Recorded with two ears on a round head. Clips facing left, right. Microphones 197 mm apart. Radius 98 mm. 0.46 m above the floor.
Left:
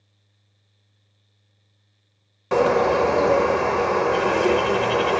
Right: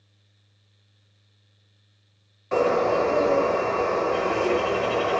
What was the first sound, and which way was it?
A bird, 70° left (ahead or behind).